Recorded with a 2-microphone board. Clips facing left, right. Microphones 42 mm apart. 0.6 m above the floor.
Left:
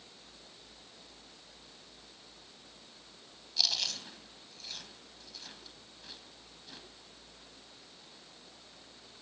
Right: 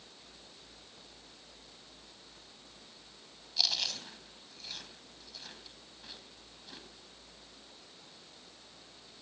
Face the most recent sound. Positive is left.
turn(degrees=-5)  # may be behind; listen again after turning